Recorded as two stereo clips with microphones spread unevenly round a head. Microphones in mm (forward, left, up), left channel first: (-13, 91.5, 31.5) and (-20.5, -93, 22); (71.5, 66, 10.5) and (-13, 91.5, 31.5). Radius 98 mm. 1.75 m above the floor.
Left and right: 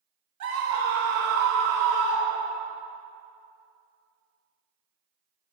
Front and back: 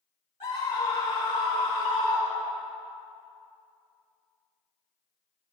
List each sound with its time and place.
0.4 s a scream: 75° right, 2 m